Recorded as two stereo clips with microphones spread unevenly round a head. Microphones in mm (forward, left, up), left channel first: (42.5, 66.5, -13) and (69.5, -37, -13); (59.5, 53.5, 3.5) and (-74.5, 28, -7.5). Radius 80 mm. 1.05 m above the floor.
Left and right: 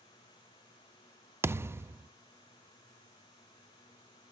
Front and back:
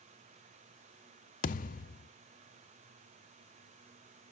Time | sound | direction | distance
1.4 | a thud | 5° right | 0.5 m